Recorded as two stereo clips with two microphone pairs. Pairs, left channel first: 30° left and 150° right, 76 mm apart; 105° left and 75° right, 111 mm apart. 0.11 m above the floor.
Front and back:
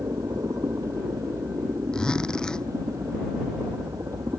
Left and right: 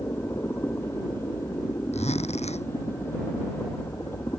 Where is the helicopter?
170° left.